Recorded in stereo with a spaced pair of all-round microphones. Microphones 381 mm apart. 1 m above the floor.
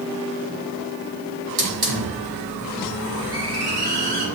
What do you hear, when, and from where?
1.6 s a hiss: 75° right (ahead or behind), 1.7 m